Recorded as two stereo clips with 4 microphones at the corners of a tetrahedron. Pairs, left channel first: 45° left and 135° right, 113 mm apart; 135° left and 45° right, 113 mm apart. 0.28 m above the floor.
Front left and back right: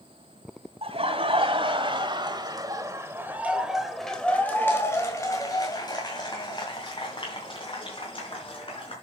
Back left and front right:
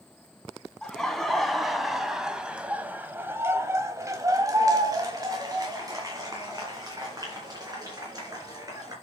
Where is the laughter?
140° right, 2 m; by 8.9 s 15° left, 3.5 m.